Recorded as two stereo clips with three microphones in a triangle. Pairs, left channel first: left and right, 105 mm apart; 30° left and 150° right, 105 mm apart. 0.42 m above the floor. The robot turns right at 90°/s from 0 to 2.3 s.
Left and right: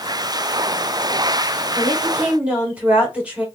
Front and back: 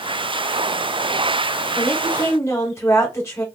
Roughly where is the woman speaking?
Ahead right.